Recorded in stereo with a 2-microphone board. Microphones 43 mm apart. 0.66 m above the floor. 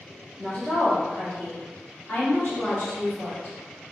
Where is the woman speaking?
20° left (ahead or behind), 1.2 m; by 3.5 s 65° left (ahead or behind), 1.8 m.